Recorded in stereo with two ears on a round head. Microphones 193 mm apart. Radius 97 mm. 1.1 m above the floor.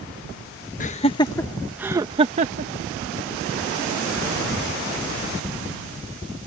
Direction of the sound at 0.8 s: 35° left (ahead or behind).